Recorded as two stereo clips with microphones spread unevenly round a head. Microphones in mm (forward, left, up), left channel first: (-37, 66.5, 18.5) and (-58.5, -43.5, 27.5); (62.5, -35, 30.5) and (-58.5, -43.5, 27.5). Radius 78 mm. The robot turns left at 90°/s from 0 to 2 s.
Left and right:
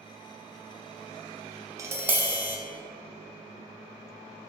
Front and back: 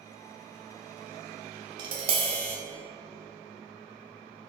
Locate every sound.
1.8 s tapping: 145° right, 0.5 m; by 2.6 s 165° right, 0.5 m